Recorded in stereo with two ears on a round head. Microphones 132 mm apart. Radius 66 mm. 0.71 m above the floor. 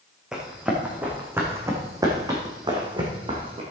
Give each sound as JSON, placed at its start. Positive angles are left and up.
{"t": 0.3, "sound": "running footsteps", "side_deg": -5, "distance_m": 3.0}